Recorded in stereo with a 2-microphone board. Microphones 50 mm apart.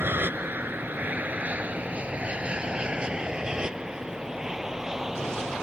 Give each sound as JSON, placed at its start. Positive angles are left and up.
{"t": 0.0, "sound": "an aircraft", "side_deg": -45}